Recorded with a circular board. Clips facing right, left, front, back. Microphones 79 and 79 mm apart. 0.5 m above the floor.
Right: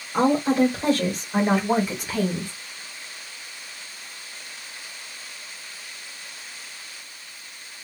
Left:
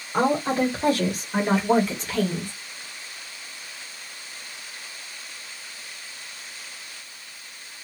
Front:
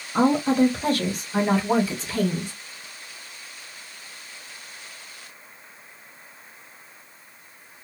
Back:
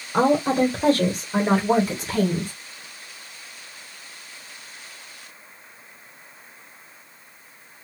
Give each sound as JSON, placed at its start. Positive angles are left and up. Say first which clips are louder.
{"t": 0.1, "sound": "a woman speaking", "louder": "right 2 dB, even", "azimuth_deg": 160, "distance_m": 2.5}